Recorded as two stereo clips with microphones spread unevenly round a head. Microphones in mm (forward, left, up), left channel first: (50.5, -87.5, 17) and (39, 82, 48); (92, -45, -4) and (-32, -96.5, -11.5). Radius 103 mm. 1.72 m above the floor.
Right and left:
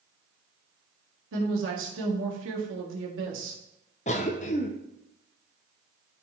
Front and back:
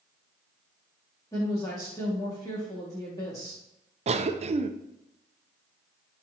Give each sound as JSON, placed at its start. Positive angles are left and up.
{"t": 1.3, "sound": "a woman speaking", "azimuth_deg": 95, "distance_m": 2.0}
{"t": 4.1, "sound": "a cough", "azimuth_deg": -145, "distance_m": 0.7}